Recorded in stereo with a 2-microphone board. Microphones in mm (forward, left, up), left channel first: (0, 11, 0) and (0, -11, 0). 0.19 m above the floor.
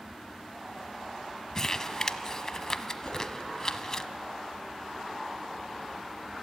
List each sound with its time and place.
1.6 s crumpling: 25° left (ahead or behind), 0.7 m
3.0 s a whoosh: 50° left (ahead or behind), 5 m